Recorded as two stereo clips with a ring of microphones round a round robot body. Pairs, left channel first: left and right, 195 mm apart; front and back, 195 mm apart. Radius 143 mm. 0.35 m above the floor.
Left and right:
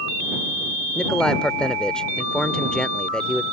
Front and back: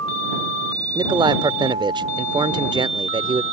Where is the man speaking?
170° left.